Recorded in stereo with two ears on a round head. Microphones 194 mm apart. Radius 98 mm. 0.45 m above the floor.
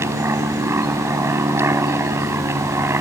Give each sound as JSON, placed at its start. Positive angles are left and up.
{"t": 0.0, "sound": "an aircraft", "side_deg": -10}